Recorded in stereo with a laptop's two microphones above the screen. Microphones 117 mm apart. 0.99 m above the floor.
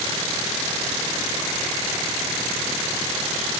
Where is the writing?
I don't hear writing.